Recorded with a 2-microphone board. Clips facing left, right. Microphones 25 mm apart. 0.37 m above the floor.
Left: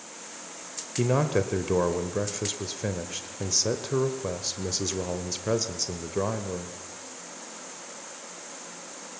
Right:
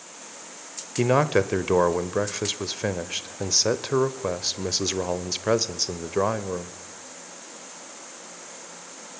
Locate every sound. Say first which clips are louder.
1.0 s a man speaking: right 4 dB; 30° right (ahead or behind), 1.0 m